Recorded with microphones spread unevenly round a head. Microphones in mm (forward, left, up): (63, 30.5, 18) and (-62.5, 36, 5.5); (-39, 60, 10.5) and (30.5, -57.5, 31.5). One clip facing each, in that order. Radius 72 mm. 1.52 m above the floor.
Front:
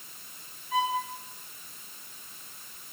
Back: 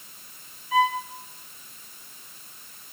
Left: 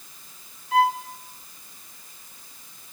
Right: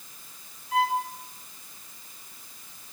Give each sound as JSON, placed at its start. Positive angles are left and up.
{"t": 0.7, "sound": "a violin", "azimuth_deg": 155, "distance_m": 4.5}